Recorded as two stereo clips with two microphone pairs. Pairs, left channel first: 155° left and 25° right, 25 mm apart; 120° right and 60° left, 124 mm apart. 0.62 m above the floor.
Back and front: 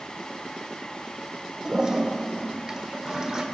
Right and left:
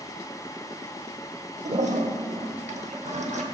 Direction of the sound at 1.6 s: 40° left.